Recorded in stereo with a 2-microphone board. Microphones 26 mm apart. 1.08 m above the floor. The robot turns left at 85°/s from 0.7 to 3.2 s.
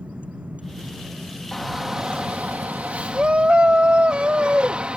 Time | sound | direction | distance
0.0 | a vehicle | 55° right (ahead or behind) | ?
1.5 | a shout | 10° left | ?